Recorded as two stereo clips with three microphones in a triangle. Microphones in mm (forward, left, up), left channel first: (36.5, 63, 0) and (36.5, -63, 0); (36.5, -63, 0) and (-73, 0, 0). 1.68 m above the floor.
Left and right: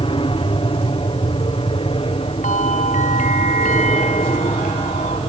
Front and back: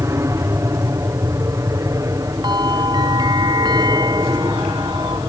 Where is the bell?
95° left.